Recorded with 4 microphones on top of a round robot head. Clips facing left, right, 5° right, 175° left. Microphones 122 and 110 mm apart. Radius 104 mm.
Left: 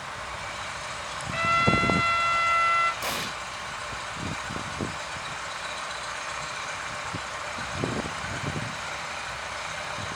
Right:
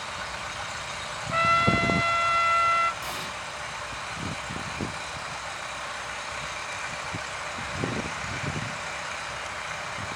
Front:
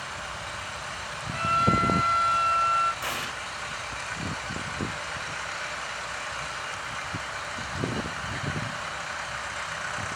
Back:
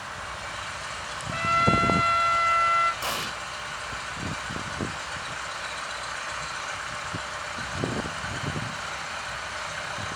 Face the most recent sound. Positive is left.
turn(degrees=110)